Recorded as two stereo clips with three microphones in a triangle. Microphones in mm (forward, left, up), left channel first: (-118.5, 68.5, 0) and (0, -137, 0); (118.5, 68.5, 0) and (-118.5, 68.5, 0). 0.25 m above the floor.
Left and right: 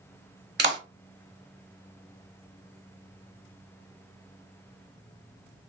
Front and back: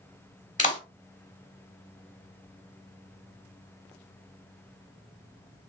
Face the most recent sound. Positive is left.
turn(degrees=-45)